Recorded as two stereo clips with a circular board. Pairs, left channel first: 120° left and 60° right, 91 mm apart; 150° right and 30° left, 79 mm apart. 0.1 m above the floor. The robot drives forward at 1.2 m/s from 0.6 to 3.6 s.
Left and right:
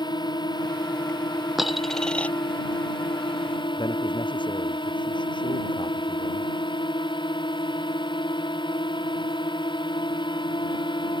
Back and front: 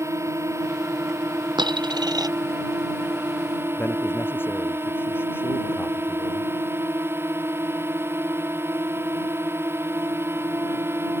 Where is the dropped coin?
25° left; by 2.3 s 50° left.